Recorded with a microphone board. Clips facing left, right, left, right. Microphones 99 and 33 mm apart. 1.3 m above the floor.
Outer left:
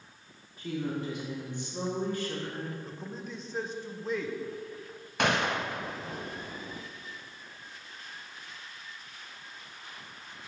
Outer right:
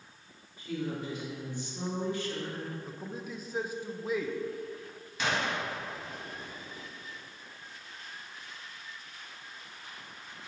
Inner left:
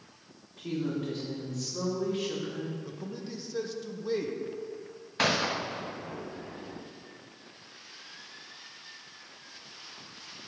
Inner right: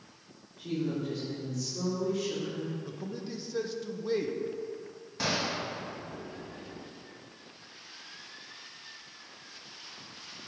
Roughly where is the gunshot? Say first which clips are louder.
Outer left 4 dB, inner left 4 dB; left.